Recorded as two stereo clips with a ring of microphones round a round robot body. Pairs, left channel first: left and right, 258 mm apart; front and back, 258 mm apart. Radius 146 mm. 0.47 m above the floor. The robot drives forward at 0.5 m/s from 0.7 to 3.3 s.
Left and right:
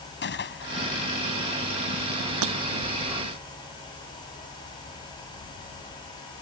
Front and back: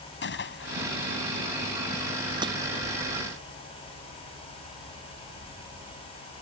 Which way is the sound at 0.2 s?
45° left.